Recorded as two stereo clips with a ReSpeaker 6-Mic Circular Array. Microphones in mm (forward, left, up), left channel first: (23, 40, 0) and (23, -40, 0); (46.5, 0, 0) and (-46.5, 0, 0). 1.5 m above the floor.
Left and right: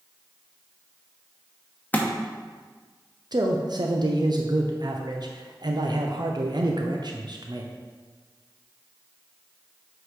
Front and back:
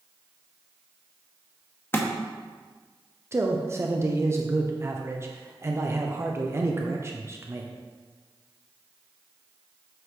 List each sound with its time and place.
1.9 s a thud: 40° left, 0.9 m
3.3 s a man speaking: 120° right, 0.7 m